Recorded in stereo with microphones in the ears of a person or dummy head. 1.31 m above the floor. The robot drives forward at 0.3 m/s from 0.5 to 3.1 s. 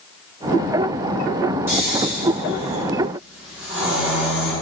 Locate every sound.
1.7 s snoring: 20° right (ahead or behind), 1.1 m; by 4.5 s 15° right (ahead or behind), 1.5 m